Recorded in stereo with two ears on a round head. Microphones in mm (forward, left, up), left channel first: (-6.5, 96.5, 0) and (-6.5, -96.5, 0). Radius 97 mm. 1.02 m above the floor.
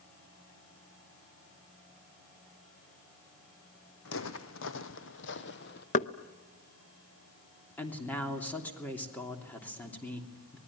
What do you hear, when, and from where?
4.0 s footsteps: 65° left (ahead or behind), 2.5 m; by 5.8 s 50° left (ahead or behind), 1.7 m
5.9 s knocking: 35° left (ahead or behind), 0.8 m
7.8 s a woman speaking: 10° left (ahead or behind), 3 m